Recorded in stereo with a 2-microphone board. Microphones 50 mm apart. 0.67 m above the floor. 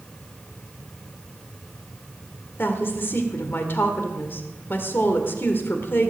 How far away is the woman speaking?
About 1.9 m.